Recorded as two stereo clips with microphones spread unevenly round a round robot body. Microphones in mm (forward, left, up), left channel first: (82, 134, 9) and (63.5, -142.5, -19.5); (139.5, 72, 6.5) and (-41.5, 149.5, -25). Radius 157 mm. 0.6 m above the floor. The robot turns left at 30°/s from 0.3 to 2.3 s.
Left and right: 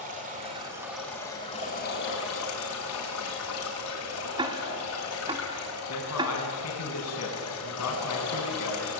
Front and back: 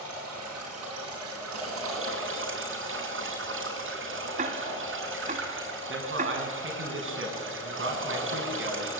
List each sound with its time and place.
0.0 s running water: 160° right, 6 m; by 9.0 s 140° left, 6 m
4.4 s ticking: 160° right, 1.0 m
5.9 s a man speaking: 135° left, 6 m